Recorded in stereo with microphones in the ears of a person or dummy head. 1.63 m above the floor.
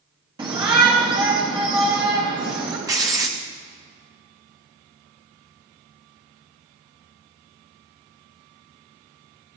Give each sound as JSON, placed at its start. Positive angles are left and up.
{"t": 0.4, "sound": "a shout", "side_deg": -25, "distance_m": 2.5}
{"t": 2.9, "sound": "writing", "side_deg": -20, "distance_m": 1.0}